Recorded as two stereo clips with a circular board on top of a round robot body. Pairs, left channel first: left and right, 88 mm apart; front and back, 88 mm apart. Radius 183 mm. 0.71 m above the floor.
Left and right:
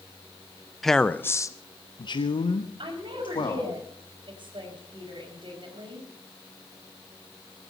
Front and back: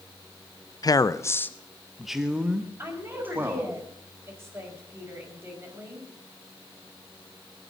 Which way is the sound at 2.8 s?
110° right.